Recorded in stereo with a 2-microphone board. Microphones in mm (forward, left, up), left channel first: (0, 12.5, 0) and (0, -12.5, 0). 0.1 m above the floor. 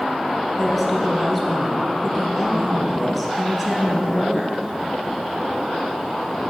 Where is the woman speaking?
Centre (ahead or behind), 2.0 m.